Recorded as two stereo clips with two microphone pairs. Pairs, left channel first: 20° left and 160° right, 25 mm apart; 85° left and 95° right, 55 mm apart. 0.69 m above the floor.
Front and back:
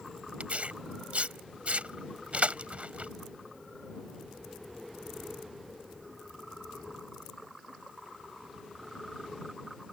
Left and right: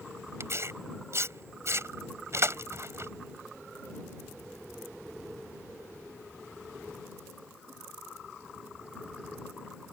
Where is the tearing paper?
125° right.